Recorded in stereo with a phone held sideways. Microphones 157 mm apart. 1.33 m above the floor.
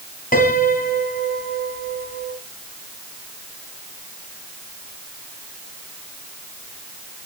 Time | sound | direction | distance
0.3 | a piano | 65° left (ahead or behind) | 3.5 m